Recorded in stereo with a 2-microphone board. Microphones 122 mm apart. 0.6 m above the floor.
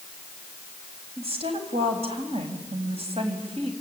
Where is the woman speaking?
55° right (ahead or behind), 4.5 m.